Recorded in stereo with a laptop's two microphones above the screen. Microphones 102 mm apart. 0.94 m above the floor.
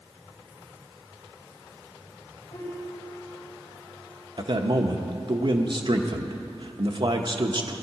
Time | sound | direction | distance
2.5 | a piano | 50° left (ahead or behind) | 5.5 m
4.4 | a man speaking | 50° right (ahead or behind) | 0.9 m